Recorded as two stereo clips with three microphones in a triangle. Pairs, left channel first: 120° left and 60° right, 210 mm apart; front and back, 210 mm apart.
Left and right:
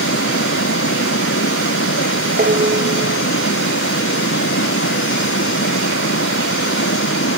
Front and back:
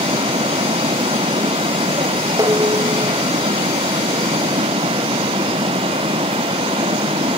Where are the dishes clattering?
105° right.